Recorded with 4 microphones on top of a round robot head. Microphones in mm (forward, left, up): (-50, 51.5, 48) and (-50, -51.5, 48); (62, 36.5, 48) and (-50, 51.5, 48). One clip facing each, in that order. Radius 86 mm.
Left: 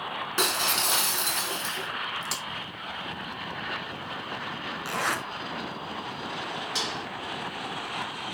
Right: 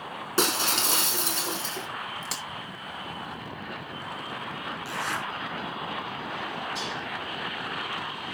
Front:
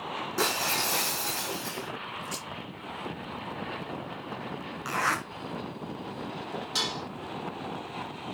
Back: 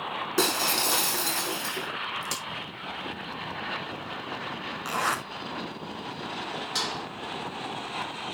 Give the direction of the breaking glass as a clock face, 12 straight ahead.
5 o'clock.